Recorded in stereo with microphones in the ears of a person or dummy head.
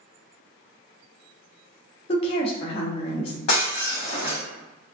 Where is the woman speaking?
35° left (ahead or behind), 0.7 m.